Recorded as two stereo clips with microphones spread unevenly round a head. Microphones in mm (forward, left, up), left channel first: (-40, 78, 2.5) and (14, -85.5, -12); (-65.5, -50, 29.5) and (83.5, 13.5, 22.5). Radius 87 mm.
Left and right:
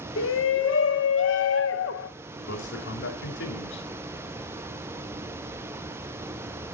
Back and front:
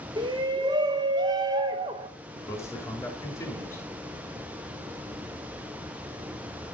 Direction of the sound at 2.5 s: 130° left.